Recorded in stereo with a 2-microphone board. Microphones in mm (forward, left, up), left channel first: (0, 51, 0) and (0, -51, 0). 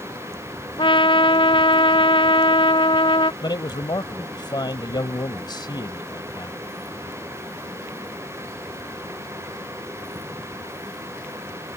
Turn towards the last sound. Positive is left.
turn(degrees=45)  # may be behind; listen again after turning